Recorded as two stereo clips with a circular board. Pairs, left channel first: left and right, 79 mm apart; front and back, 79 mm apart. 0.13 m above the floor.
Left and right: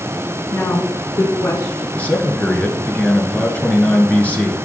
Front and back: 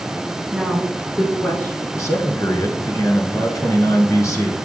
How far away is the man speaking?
About 1.5 m.